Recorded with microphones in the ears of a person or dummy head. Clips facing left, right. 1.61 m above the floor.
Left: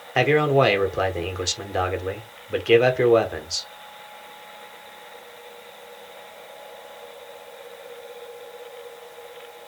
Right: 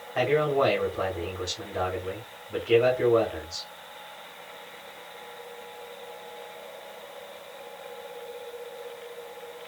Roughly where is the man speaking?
Left.